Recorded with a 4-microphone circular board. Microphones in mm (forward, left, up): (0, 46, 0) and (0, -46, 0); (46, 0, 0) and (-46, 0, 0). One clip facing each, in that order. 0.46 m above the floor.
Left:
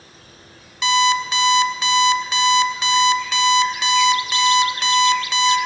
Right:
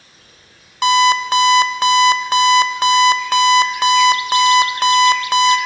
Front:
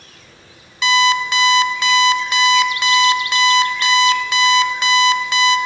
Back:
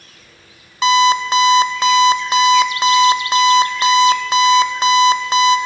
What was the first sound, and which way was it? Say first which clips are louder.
An alarm clock: right 4 dB, back 3 dB; 130° right.